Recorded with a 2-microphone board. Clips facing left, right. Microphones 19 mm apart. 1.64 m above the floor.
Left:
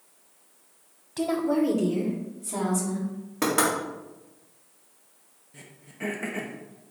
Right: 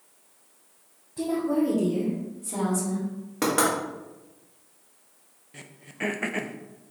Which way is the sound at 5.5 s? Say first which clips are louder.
Right 5 dB; 30° right (ahead or behind).